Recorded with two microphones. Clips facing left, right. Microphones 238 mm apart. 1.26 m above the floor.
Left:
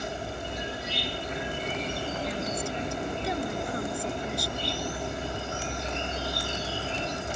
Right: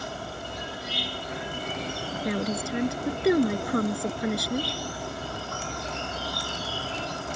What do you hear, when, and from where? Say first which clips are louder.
0.0 s an insect: left 2 dB; 25° left (ahead or behind)
2.2 s a woman speaking: right 4 dB; 90° right